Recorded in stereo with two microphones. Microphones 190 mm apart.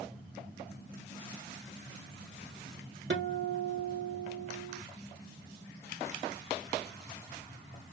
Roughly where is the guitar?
Right.